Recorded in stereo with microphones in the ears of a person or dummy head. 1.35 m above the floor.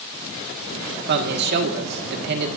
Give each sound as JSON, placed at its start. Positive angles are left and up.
{"t": 1.1, "sound": "a man speaking", "side_deg": -55, "distance_m": 1.7}